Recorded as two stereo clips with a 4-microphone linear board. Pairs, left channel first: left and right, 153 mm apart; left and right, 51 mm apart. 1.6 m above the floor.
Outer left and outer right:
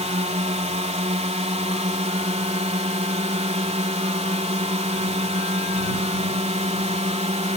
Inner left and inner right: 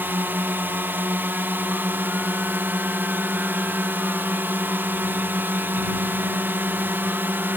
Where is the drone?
45° right (ahead or behind).